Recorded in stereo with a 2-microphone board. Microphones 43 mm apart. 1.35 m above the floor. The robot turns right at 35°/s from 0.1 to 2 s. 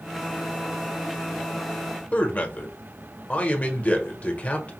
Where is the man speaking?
40° left (ahead or behind), 1.2 m.